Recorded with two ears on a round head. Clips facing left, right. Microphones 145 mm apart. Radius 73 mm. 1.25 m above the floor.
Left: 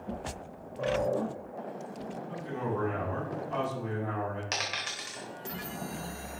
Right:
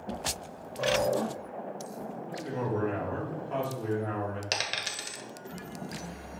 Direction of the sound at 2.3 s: 70° right (ahead or behind).